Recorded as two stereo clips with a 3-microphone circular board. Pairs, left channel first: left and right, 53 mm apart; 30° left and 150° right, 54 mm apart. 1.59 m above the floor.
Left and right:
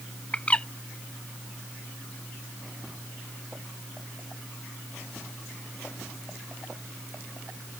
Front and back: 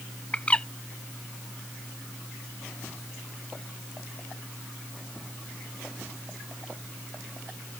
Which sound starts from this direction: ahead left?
A bird, at 0.3 s.